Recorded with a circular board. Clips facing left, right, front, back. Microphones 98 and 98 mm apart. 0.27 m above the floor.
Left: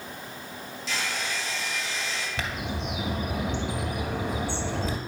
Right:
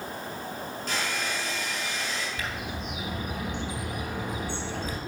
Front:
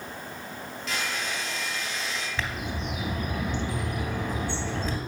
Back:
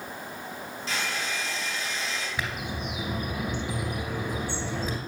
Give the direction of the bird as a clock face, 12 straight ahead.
9 o'clock.